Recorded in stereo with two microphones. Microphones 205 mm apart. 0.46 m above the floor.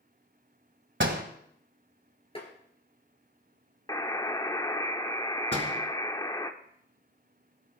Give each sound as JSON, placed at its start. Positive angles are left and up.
{"t": 1.0, "sound": "a door slam", "side_deg": -70, "distance_m": 1.7}
{"t": 2.4, "sound": "tapping", "side_deg": 30, "distance_m": 3.5}
{"t": 3.9, "sound": "a buzzer", "side_deg": 20, "distance_m": 0.9}
{"t": 5.5, "sound": "a door slam", "side_deg": -75, "distance_m": 3.0}